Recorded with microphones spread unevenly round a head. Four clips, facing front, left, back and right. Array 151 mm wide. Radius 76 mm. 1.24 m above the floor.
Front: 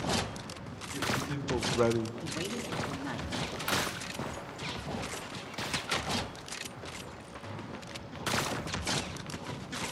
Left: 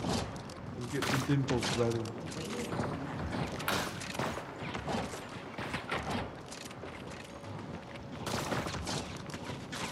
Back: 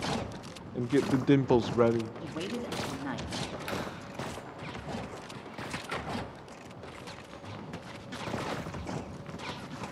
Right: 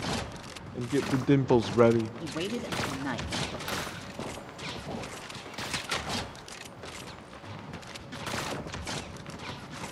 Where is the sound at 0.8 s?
150° right, 0.8 m; by 2.1 s 65° right, 0.7 m.